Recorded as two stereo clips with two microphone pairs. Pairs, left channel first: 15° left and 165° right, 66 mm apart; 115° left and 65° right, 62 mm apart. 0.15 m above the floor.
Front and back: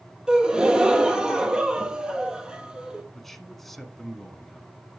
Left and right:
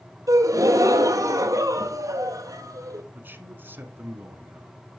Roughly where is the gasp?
Right.